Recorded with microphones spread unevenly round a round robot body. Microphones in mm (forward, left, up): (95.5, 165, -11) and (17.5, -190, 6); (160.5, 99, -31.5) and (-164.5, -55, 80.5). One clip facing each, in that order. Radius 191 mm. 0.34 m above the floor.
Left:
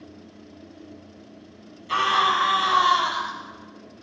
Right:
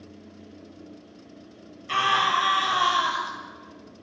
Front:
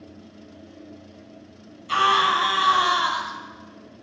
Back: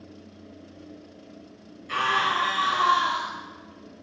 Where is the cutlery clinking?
No cutlery clinking in this recording.